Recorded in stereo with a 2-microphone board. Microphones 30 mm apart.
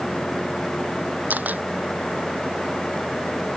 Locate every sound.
1.3 s a camera shutter: 70° right (ahead or behind)